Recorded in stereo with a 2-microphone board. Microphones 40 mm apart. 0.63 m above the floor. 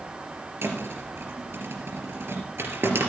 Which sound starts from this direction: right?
A thud, at 0.6 s.